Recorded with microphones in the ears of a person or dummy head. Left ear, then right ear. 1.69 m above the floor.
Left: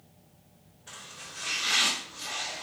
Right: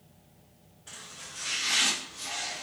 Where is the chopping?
Centre (ahead or behind), 1.0 m.